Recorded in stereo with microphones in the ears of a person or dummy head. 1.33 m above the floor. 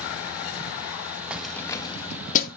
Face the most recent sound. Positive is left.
turn(degrees=45)  # may be behind; listen again after turning